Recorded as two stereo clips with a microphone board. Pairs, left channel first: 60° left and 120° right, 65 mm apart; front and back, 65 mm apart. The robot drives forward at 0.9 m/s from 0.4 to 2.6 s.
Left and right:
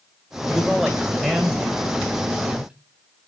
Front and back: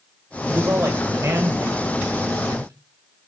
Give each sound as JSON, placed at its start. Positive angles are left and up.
{"t": 0.5, "sound": "a man speaking", "azimuth_deg": 150, "distance_m": 2.0}